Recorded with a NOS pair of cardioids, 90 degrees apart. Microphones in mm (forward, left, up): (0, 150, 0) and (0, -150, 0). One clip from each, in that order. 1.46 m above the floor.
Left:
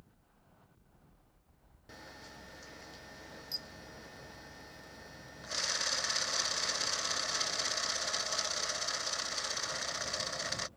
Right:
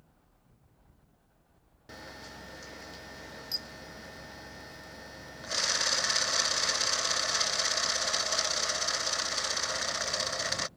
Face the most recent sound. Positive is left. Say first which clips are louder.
# right 5 dB
turn(degrees=-20)